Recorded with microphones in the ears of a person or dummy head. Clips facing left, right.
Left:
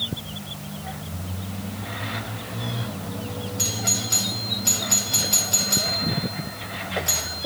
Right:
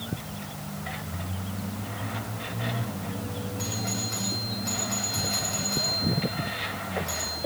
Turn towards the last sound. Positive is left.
turn(degrees=45)  # may be behind; listen again after turning